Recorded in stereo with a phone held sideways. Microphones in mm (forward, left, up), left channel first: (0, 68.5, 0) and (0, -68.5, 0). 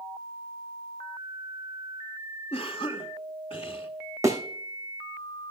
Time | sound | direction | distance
2.5 | a cough | 45° left (ahead or behind) | 1.1 m
4.2 | a thud | 25° right (ahead or behind) | 2 m